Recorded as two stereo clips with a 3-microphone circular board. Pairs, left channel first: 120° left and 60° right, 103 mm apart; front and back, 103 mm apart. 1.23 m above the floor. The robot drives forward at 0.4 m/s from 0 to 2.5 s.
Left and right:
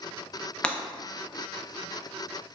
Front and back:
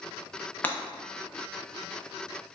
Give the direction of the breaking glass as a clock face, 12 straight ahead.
10 o'clock.